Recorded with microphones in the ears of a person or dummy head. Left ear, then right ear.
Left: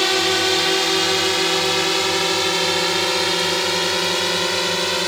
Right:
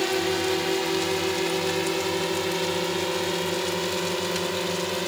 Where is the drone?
55° left (ahead or behind); by 5.1 s 65° left (ahead or behind).